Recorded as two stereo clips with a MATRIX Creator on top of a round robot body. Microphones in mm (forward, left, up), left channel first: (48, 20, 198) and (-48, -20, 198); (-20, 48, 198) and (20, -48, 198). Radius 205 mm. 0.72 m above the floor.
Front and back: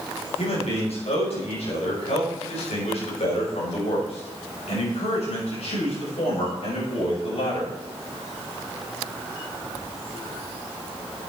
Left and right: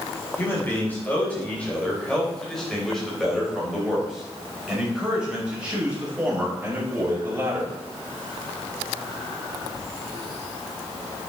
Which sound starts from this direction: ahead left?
A man speaking, at 0.4 s.